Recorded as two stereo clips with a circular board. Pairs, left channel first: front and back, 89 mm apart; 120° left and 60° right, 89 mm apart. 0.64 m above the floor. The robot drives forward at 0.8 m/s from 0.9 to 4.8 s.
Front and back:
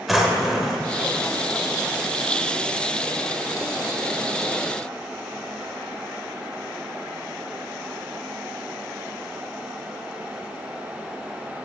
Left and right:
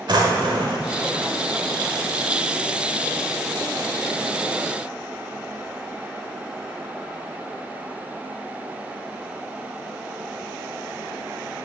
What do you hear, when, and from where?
0.1 s a drawer: 95° right, 1.0 m